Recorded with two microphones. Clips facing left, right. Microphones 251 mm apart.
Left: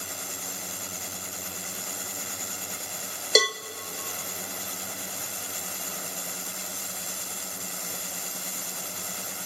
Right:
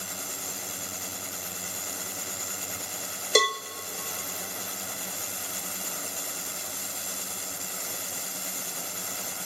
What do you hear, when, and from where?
3.4 s a cowbell: 5° left (ahead or behind), 0.6 m